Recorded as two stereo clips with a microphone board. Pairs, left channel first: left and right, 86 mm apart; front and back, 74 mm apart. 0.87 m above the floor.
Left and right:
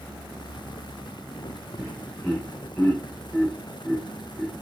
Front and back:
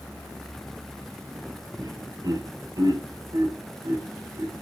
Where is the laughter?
165° left, 3.5 m.